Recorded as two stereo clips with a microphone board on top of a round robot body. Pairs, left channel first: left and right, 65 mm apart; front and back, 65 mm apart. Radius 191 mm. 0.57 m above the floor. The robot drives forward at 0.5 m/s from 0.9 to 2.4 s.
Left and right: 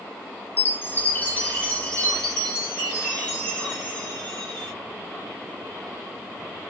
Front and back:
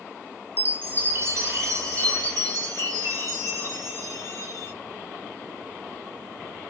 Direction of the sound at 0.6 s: 135° left.